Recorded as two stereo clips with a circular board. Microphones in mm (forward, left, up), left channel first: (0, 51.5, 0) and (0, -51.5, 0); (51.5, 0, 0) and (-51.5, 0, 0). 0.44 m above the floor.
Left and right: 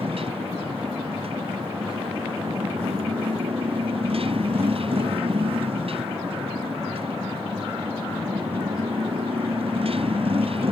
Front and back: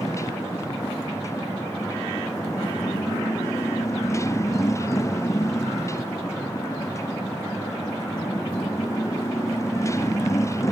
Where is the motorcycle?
60° right.